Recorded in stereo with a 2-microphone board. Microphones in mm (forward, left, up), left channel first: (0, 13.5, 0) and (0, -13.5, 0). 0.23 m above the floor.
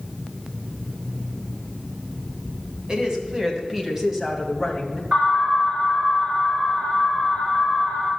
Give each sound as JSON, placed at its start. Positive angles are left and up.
{"t": 2.9, "sound": "a woman speaking", "side_deg": -35, "distance_m": 2.0}
{"t": 5.1, "sound": "an alarm", "side_deg": -65, "distance_m": 5.0}